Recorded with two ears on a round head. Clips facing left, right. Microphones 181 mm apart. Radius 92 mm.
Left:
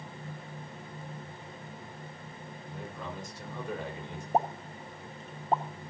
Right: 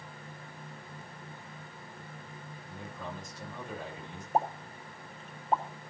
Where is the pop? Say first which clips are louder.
Left 1 dB; 35° left (ahead or behind), 2.5 m.